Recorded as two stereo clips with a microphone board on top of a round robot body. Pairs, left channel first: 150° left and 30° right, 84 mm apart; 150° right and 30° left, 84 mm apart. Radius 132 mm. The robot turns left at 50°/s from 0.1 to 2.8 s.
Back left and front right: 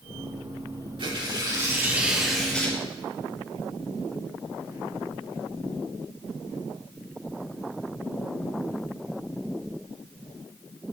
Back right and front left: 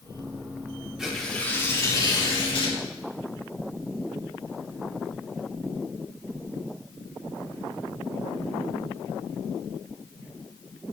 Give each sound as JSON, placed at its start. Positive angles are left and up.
{"t": 1.0, "sound": "tearing paper", "azimuth_deg": -50, "distance_m": 4.5}